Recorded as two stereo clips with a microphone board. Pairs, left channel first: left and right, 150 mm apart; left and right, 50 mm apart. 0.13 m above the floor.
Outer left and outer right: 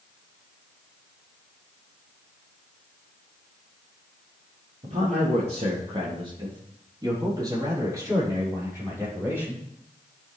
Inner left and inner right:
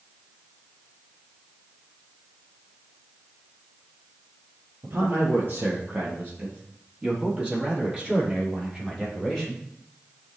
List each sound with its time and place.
4.8 s a man speaking: 50° right (ahead or behind), 3 m; by 9.6 s 10° right (ahead or behind), 6 m